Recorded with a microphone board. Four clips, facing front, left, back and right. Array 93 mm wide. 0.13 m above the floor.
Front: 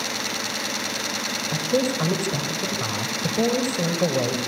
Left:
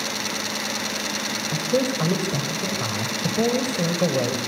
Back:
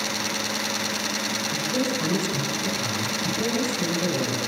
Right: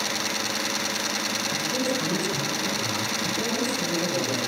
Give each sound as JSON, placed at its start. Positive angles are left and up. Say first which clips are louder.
{"t": 1.5, "sound": "a woman speaking", "louder": "left 6 dB, front 5 dB", "azimuth_deg": 40, "distance_m": 5.0}